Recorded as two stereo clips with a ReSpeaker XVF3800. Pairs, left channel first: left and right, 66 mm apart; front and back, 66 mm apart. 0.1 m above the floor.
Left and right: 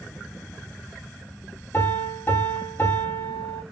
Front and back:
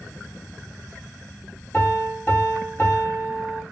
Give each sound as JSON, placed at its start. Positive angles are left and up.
{"t": 1.7, "sound": "a piano", "azimuth_deg": 45, "distance_m": 3.0}